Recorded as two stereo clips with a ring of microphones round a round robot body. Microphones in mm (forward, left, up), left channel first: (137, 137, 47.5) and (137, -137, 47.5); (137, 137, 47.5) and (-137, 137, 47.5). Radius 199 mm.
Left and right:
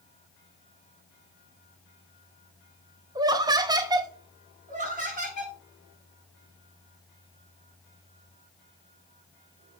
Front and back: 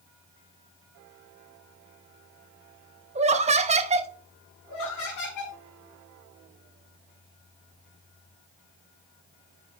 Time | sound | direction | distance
3.1 | laughter | 150° right | 0.6 m
4.7 | laughter | 30° right | 4.5 m